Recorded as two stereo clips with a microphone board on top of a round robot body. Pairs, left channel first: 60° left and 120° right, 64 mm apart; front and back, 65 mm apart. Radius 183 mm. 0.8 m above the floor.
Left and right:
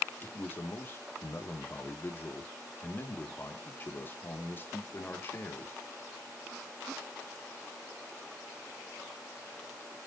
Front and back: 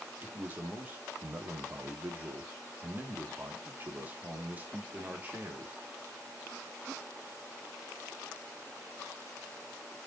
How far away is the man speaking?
About 1.9 m.